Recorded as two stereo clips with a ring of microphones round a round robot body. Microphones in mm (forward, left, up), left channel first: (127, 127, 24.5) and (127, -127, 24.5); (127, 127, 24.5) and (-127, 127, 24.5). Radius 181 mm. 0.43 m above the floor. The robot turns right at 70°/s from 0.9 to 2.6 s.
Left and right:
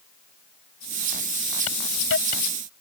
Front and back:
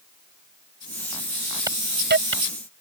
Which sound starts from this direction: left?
A hiss, at 1.7 s.